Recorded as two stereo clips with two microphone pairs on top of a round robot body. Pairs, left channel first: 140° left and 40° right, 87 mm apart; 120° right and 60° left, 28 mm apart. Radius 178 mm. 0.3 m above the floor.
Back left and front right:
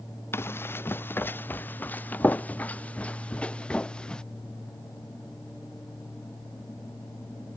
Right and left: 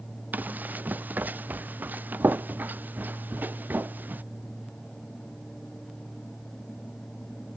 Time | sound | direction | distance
0.3 | running footsteps | 80° left | ?